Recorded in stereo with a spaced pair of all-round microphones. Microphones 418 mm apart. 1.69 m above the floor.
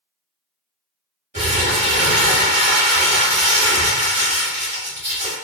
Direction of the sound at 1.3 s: 20° right (ahead or behind).